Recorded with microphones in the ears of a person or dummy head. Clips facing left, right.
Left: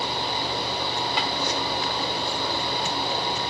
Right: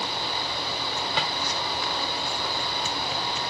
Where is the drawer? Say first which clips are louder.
Even; 55° right (ahead or behind), 2.5 m.